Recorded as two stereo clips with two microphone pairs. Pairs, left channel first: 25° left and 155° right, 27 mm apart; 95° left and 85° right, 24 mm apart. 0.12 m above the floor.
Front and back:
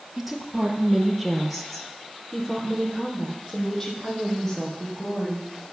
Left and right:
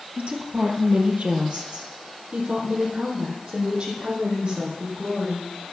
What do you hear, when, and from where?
0.2 s a woman speaking: 75° right, 2.5 m; by 5.5 s 45° right, 6 m